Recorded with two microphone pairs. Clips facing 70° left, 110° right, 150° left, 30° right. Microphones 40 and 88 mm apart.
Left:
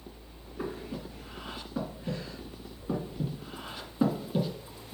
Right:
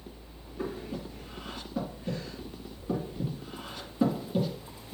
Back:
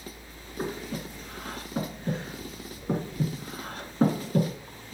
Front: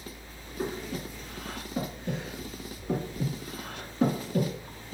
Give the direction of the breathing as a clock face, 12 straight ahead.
7 o'clock.